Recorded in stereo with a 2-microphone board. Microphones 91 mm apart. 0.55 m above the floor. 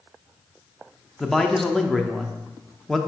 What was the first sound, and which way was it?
A man speaking, 5° left (ahead or behind).